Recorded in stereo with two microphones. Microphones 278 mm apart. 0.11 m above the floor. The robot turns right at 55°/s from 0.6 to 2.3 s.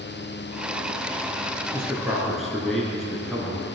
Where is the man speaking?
10° right (ahead or behind), 1.2 m; by 3.6 s centre (ahead or behind), 1.2 m.